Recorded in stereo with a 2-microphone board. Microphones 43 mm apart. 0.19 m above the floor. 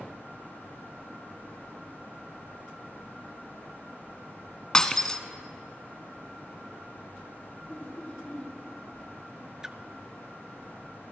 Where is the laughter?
25° left (ahead or behind), 6.5 m.